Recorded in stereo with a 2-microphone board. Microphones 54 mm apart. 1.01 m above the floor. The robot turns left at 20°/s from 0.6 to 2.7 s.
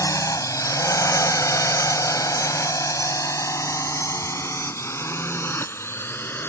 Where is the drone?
80° left; by 6.5 s 40° left (ahead or behind).